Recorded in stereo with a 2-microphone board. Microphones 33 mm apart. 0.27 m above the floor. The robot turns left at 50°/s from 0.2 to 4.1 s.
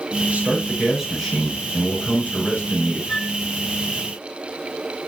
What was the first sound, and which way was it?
A man speaking, 135° right.